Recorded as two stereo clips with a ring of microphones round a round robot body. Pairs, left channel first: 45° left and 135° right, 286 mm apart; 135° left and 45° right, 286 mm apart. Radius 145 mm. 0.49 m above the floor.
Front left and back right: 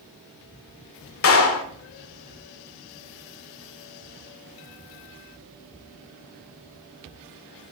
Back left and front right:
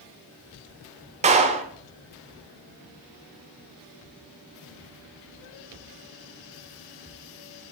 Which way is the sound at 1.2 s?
15° left.